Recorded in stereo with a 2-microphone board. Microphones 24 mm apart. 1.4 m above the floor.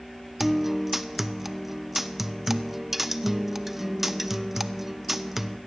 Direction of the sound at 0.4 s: 10° right (ahead or behind).